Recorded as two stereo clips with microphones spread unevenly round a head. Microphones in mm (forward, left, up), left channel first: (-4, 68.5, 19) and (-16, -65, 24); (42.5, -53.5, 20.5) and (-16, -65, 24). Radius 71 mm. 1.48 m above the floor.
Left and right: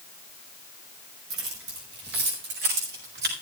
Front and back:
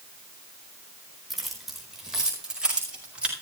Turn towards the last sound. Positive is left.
turn(degrees=-100)